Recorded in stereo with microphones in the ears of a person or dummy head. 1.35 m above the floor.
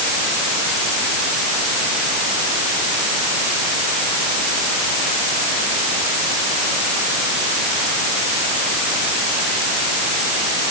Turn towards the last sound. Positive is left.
No sound to turn to.